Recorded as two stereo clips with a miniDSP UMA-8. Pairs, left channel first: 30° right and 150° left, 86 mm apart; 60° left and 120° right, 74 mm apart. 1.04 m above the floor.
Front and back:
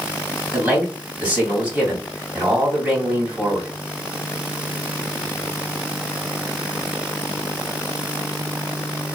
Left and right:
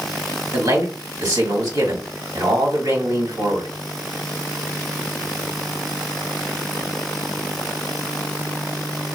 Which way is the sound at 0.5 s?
135° right.